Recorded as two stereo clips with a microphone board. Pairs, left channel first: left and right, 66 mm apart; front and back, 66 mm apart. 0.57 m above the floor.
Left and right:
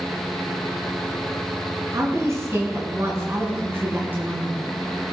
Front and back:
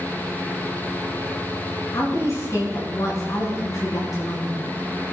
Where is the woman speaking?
45° right, 5.5 m; by 4.6 s 25° right, 5.5 m.